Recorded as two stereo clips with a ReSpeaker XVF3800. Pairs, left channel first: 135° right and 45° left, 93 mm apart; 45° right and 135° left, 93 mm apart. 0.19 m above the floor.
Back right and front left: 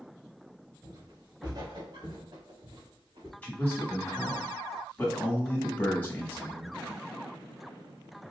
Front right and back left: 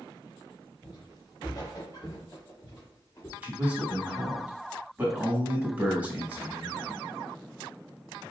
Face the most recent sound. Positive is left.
turn(degrees=180)